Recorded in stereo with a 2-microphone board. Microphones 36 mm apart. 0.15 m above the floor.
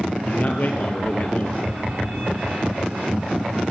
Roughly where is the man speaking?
Left.